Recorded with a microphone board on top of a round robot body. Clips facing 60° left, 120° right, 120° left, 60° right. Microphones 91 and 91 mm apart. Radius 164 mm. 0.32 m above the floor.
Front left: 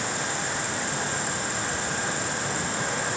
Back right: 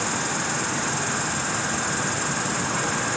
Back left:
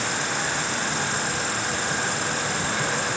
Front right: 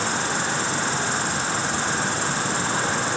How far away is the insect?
About 3 m.